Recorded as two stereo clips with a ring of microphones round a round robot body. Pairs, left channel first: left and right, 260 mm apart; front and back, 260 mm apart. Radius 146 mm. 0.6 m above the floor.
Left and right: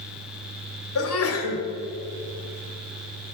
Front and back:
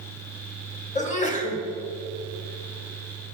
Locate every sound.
0.9 s a sneeze: 60° left, 1.7 m